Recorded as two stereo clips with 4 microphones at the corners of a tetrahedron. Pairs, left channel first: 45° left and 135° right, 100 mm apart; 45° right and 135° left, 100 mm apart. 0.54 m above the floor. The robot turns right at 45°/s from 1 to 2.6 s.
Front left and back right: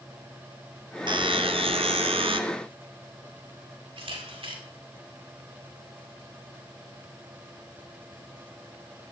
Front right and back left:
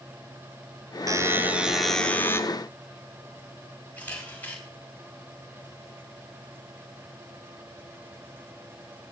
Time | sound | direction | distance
1.1 | a buzzer | 170° right | 1.2 m
4.0 | a camera shutter | 115° right | 4.5 m